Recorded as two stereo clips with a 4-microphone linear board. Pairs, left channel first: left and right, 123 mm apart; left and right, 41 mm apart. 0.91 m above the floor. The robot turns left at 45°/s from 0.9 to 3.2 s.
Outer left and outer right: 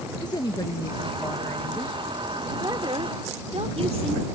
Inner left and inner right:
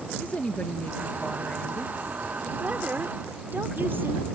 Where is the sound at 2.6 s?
30° right (ahead or behind); by 4.3 s 55° right (ahead or behind).